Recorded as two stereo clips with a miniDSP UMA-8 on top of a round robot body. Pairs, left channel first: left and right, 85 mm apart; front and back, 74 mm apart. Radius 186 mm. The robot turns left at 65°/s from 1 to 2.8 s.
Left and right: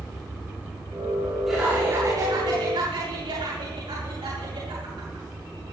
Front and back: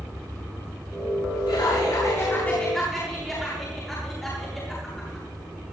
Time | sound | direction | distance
1.5 | laughter | straight ahead | 7 m